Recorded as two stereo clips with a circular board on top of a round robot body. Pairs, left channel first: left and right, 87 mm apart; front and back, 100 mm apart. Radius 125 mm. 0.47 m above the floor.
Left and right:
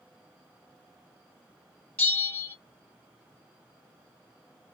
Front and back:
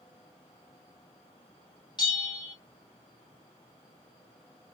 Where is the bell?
25° left, 1.8 m.